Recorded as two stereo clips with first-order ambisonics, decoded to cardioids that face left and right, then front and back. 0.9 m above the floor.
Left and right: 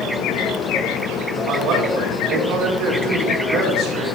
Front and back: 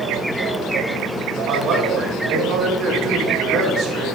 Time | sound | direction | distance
1.5 | a man speaking | 125° right | 4.5 m